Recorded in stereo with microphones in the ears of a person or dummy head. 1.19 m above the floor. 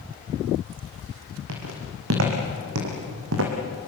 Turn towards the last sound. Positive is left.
turn(degrees=-75)  # may be behind; listen again after turning